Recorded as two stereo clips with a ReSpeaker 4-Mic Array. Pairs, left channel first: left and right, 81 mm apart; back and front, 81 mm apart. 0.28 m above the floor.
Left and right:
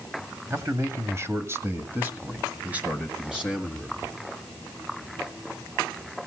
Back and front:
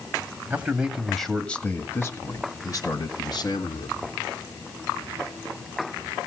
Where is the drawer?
No drawer in this recording.